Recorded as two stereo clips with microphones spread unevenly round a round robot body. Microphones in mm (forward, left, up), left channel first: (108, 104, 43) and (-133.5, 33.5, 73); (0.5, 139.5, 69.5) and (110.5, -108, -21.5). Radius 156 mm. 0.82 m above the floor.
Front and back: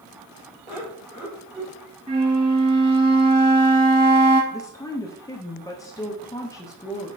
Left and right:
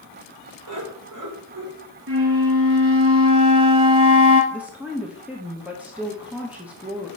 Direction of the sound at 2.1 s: 90° right.